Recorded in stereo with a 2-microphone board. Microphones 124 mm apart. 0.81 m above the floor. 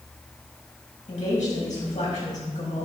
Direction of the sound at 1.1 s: 70° left (ahead or behind).